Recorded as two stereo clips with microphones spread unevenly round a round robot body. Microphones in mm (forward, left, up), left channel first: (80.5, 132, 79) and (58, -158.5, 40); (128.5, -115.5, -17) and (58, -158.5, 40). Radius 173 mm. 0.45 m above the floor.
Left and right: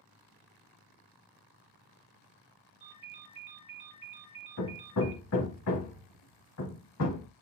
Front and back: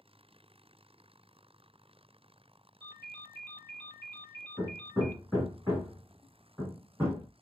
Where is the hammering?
130° left, 0.9 m.